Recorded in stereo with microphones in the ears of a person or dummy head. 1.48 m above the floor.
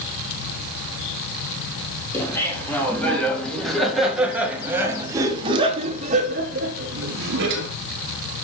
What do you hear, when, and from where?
2.1 s laughter: 10° left (ahead or behind), 2.5 m; by 7.7 s 75° right (ahead or behind), 1.4 m